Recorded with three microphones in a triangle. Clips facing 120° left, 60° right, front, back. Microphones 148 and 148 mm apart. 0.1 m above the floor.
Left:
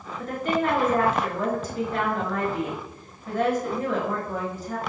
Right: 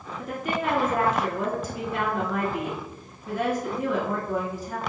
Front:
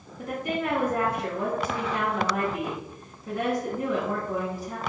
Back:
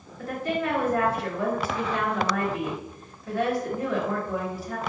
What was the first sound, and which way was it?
A woman speaking, 10° right.